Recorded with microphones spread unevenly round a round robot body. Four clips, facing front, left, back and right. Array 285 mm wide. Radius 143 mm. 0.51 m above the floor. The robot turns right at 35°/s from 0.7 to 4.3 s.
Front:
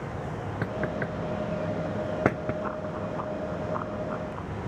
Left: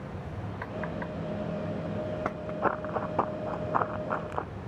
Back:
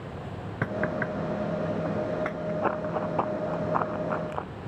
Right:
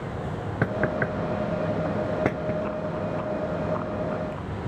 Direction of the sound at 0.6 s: 95° right.